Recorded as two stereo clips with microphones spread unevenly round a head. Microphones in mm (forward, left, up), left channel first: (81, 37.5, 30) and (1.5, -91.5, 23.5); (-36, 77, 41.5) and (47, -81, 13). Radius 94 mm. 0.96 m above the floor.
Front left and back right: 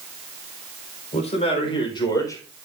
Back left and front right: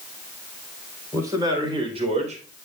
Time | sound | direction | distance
1.1 | a man speaking | 10° left | 4.5 m